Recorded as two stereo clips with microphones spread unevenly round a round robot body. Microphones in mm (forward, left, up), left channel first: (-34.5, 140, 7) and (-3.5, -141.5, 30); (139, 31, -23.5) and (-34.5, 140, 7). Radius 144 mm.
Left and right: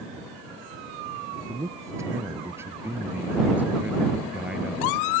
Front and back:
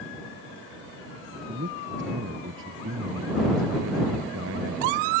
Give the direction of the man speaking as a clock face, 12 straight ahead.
5 o'clock.